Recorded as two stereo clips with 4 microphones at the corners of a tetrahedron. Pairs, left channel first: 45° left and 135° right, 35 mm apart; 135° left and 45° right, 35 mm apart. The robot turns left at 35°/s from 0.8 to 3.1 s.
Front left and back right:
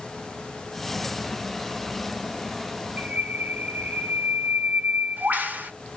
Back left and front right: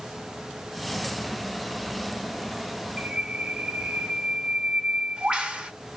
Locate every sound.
3.0 s a bird: 100° right, 1.2 m; by 5.7 s 105° right, 1.2 m